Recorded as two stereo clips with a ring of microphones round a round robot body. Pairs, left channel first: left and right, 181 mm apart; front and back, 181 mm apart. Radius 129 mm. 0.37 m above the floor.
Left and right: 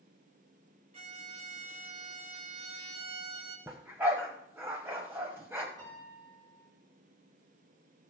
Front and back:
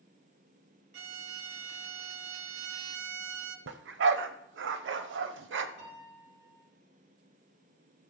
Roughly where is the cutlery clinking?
I don't hear cutlery clinking.